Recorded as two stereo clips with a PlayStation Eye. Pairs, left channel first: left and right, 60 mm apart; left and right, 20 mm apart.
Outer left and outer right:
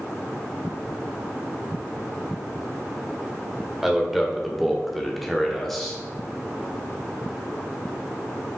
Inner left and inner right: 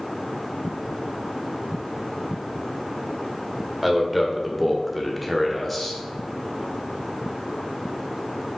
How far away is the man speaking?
About 1.9 m.